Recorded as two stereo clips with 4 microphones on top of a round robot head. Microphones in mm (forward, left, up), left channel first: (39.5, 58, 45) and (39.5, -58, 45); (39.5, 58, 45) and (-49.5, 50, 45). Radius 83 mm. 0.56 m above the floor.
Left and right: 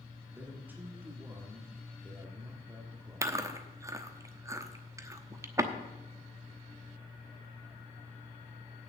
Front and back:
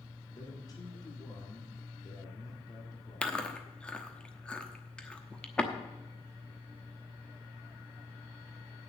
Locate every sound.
0.3 s a man speaking: 20° right, 1.7 m
3.2 s chewing: 65° right, 1.0 m